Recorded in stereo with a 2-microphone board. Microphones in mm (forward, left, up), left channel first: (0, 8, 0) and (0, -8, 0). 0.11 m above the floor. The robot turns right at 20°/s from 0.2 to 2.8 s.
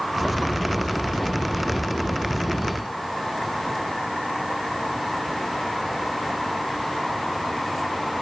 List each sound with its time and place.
Only background noise.